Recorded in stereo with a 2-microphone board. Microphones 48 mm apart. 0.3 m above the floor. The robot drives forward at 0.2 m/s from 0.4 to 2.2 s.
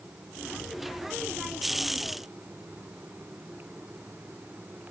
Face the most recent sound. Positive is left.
No sound to turn to.